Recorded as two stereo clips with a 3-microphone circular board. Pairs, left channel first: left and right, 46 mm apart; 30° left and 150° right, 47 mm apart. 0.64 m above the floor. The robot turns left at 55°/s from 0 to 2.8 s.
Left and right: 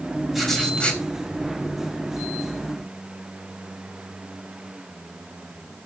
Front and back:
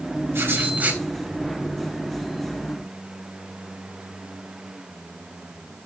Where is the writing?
175° right, 3.5 m; by 1.0 s 145° left, 3.5 m.